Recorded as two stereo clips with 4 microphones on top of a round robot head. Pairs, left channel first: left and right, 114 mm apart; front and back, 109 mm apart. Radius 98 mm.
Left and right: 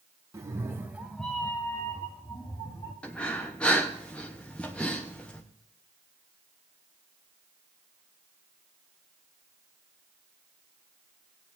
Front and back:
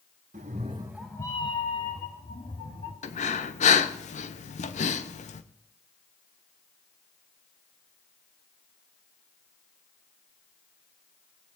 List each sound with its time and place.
0.3 s a cat meowing: 150° right, 1.2 m; by 2.9 s 25° left, 3 m
3.0 s breathing: 10° left, 1.0 m